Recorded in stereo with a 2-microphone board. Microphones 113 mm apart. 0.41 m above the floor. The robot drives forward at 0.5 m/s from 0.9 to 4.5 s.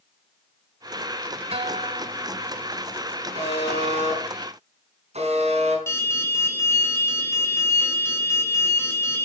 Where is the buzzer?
75° right (ahead or behind), 4.5 m; by 5.8 s 70° right (ahead or behind), 4.5 m.